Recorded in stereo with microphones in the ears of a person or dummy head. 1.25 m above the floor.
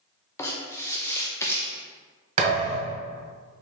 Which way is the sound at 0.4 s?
15° left (ahead or behind).